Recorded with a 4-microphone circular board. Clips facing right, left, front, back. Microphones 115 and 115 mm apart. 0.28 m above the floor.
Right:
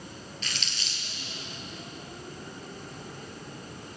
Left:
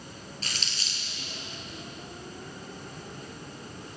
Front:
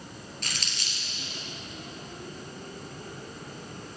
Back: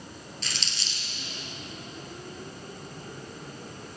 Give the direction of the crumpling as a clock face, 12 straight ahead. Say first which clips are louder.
Even, even; 11 o'clock.